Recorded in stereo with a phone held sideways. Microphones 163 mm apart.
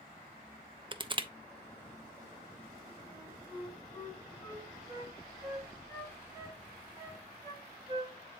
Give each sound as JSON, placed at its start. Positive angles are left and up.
{"t": 0.9, "sound": "crushing", "side_deg": -30, "distance_m": 0.6}
{"t": 3.1, "sound": "a flute", "side_deg": 20, "distance_m": 7.0}